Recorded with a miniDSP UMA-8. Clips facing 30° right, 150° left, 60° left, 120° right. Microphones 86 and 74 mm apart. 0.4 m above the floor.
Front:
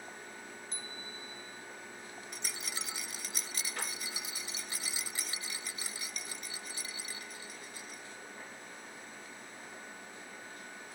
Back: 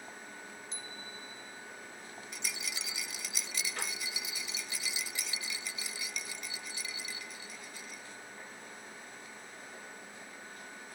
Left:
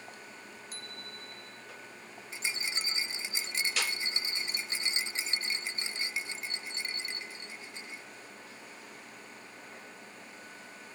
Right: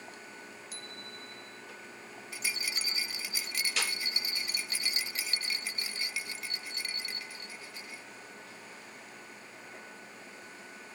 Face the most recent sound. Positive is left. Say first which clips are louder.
# back 2 dB, left 1 dB
turn(degrees=5)